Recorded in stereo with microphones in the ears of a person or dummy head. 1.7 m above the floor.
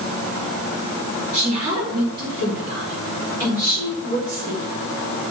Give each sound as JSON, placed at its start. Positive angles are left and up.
{"t": 1.3, "sound": "a woman speaking", "side_deg": -25, "distance_m": 3.5}